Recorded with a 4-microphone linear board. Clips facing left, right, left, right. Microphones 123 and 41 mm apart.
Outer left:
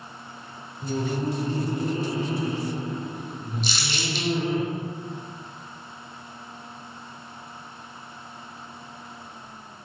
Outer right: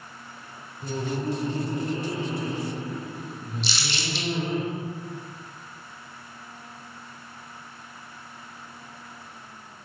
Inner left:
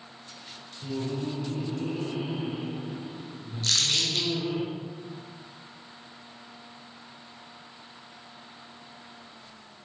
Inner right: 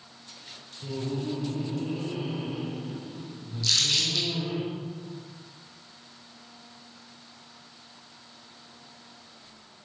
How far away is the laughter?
About 1.6 m.